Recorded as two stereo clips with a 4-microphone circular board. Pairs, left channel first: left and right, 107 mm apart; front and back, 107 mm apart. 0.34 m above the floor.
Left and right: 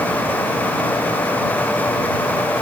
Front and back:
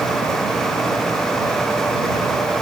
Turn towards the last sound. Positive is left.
No sound to turn to.